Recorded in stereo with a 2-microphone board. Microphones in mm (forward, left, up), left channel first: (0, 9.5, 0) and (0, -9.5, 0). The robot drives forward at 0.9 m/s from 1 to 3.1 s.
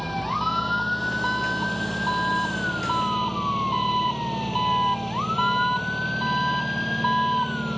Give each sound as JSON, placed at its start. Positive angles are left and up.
{"t": 0.0, "sound": "an engine running", "side_deg": 0}